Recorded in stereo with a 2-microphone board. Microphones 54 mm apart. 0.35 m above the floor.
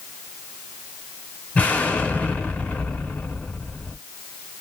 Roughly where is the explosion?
Left.